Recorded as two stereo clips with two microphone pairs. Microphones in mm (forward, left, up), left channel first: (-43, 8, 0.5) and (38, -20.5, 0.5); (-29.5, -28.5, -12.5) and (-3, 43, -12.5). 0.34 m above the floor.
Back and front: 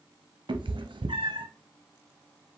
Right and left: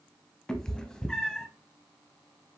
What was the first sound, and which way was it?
A cat meowing, 30° right.